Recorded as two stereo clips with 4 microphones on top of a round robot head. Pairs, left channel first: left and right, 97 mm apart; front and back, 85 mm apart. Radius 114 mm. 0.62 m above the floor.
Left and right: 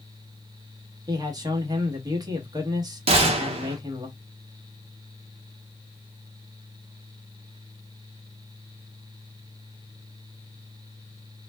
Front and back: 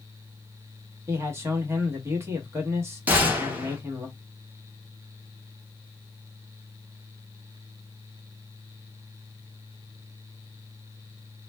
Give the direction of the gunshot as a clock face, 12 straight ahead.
4 o'clock.